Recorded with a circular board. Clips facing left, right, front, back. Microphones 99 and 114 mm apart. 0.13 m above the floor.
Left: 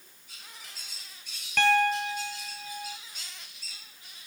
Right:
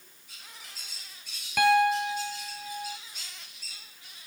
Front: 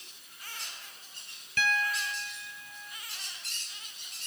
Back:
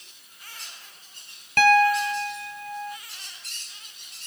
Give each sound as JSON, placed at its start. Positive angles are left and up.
{"t": 1.6, "sound": "a piano", "azimuth_deg": -170}